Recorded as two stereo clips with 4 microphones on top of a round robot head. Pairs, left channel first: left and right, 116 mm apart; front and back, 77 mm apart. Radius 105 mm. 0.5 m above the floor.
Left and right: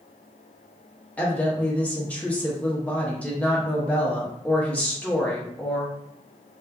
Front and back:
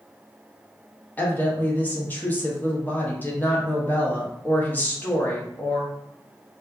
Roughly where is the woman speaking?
Ahead left.